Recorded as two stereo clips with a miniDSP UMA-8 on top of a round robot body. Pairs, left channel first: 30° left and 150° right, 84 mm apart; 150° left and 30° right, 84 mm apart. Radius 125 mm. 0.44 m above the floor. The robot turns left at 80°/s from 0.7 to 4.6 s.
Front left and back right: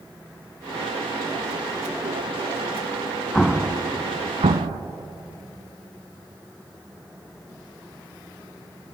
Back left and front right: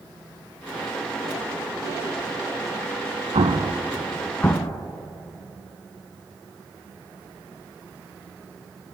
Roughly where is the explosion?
Ahead right.